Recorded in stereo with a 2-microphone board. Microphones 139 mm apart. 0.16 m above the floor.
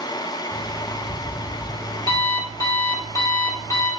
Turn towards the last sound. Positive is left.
turn(degrees=25)  # may be behind; listen again after turning